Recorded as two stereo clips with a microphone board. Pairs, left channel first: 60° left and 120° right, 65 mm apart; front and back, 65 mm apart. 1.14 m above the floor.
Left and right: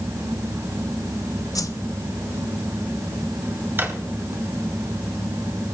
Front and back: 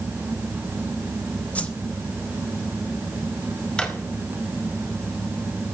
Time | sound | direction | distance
1.6 | a whoosh | 65° left | 0.8 m
3.8 | a drawer | 75° right | 1.5 m